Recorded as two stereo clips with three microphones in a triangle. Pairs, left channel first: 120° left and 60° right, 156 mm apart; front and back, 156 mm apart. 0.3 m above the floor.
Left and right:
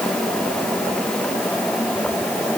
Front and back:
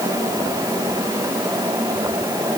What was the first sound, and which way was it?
Only background noise.